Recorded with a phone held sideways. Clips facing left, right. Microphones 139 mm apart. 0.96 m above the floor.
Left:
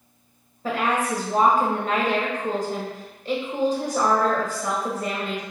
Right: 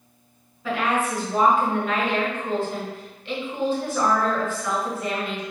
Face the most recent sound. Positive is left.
turn(degrees=40)  # may be behind; listen again after turning